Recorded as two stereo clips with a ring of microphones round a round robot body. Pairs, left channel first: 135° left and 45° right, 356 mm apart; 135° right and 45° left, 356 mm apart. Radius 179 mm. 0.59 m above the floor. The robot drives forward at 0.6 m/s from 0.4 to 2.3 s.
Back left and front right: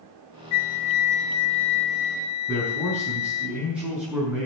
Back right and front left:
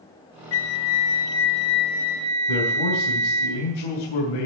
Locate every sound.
0.5 s a flute: 175° left, 0.5 m; by 3.5 s straight behind, 1.6 m
2.5 s a man speaking: 130° right, 5.5 m